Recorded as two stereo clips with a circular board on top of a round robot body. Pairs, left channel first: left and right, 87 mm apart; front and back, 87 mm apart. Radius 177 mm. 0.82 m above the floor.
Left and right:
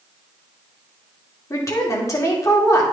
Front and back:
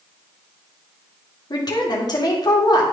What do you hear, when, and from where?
1.5 s a woman speaking: 40° left, 2 m